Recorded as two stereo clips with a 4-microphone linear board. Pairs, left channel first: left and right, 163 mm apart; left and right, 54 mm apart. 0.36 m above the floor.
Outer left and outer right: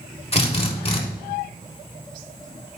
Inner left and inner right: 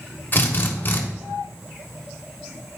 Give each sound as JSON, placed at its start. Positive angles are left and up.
{"t": 0.3, "sound": "a drill", "side_deg": 40, "distance_m": 1.1}